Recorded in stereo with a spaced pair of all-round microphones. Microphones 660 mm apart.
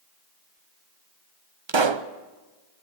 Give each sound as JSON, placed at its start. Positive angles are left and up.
{"t": 1.7, "sound": "a pop", "side_deg": -45, "distance_m": 0.8}